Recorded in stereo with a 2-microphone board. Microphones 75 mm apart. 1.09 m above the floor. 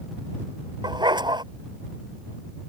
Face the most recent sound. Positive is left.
turn(degrees=-75)  # may be behind; listen again after turning